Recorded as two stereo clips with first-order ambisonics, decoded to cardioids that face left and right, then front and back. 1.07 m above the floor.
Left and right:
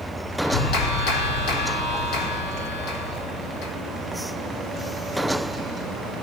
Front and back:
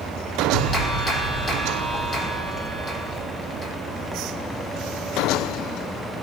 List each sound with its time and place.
0.4 s a clap: 65° left, 3 m